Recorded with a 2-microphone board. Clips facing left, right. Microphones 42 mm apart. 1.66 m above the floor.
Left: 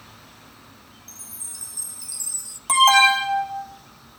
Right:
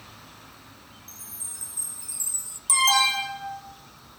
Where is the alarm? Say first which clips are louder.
Left 7 dB; 45° left (ahead or behind), 3 m.